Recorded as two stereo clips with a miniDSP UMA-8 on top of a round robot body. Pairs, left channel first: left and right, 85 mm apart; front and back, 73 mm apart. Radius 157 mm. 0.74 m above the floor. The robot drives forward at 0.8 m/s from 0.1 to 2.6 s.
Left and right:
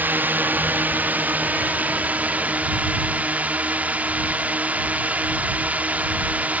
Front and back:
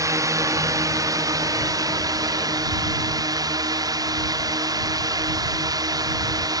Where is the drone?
155° right; by 6.6 s 160° right.